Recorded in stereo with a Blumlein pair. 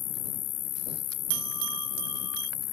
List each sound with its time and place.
0.0 s an insect: 35° left
1.3 s a bell: 45° right